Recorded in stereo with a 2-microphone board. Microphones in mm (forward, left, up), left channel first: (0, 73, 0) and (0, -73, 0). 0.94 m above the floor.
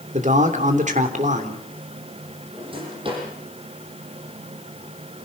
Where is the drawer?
35° right (ahead or behind), 9 m.